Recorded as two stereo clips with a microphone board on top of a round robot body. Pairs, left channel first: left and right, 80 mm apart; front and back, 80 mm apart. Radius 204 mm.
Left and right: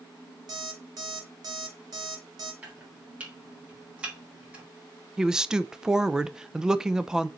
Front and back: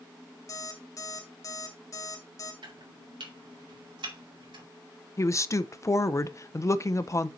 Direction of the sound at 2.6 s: 165° right.